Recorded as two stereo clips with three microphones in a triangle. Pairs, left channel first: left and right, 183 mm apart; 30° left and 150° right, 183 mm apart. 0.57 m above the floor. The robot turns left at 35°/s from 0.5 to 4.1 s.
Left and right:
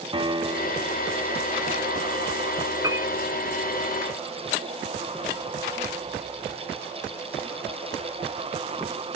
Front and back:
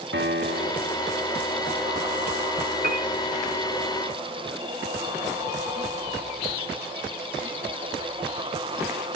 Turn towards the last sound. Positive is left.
turn(degrees=160)